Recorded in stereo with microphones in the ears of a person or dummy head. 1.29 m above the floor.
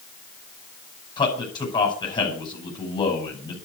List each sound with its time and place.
1.2 s a man speaking: 25° left (ahead or behind), 5.5 m